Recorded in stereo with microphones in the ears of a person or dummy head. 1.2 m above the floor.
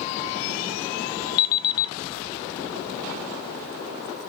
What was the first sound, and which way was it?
An alarm clock, 20° left (ahead or behind).